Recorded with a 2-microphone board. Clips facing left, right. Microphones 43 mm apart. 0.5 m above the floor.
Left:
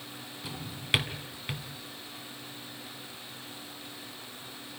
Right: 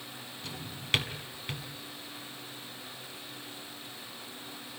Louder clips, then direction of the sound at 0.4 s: Left 2 dB; 10° left (ahead or behind).